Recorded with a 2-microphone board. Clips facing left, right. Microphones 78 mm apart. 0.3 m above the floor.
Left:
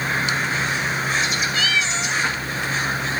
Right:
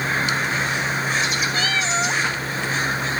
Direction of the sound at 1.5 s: 40° right (ahead or behind).